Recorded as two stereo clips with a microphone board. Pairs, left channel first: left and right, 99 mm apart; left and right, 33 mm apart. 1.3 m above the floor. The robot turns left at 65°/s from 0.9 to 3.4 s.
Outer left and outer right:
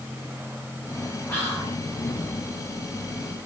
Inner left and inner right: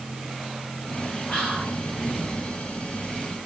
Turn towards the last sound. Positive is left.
turn(degrees=25)